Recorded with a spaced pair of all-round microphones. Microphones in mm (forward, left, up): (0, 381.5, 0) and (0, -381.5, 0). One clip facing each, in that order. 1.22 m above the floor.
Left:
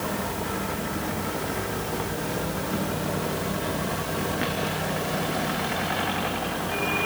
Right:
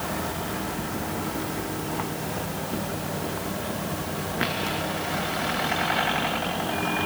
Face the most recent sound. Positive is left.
No sound to turn to.